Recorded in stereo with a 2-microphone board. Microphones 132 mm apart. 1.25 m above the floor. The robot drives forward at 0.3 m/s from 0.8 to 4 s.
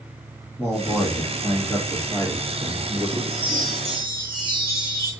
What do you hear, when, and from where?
0.6 s a man speaking: 10° left (ahead or behind), 1.5 m; by 3.2 s 5° left (ahead or behind), 2 m
3.3 s a chime: 45° right (ahead or behind), 1.4 m; by 5.1 s 40° right (ahead or behind), 1.5 m